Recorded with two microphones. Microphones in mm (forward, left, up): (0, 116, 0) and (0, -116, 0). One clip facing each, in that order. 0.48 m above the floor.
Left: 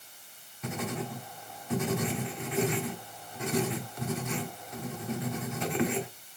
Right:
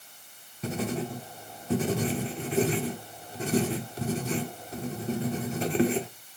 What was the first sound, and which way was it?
Writing, 35° right (ahead or behind).